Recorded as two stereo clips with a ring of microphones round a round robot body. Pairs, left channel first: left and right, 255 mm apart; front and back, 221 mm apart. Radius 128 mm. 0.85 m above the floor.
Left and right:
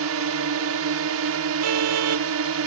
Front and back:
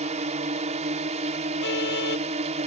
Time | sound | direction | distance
0.0 | a drone | 115° right | ?
1.6 | a car horn | 55° right | ?